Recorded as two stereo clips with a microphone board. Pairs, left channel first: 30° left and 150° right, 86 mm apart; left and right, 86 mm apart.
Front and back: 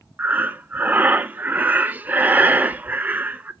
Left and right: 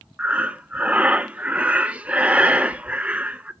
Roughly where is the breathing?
Behind right.